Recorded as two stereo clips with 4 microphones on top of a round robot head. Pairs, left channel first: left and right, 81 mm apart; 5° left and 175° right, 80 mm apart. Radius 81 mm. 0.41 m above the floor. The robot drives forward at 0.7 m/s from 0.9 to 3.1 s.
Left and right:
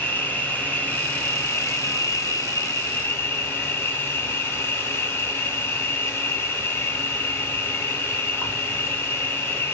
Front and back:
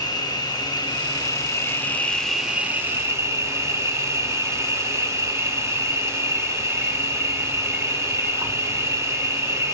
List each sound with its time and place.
0.0 s an insect: 30° left, 1.3 m; by 9.7 s 140° left, 1.0 m